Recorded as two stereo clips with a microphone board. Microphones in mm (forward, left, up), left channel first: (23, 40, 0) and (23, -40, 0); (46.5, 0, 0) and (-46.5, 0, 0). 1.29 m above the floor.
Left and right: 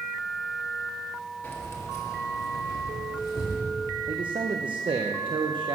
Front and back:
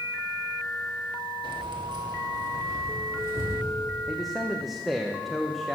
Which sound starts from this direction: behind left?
Keys jangling, at 1.4 s.